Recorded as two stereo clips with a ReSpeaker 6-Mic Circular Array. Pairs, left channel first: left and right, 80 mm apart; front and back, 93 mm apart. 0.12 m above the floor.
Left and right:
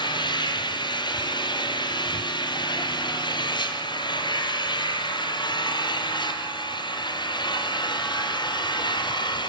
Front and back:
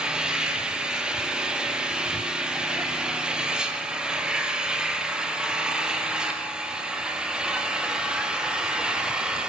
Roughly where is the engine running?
Left.